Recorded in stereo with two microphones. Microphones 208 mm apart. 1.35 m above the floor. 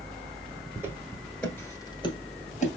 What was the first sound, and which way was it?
Footsteps, 15° right (ahead or behind).